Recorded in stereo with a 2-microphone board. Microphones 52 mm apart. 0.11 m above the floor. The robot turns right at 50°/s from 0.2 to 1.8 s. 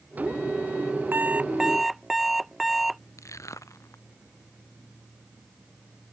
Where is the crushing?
70° left (ahead or behind).